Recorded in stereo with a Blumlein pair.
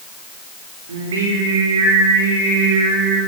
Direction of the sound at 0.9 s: 65° right.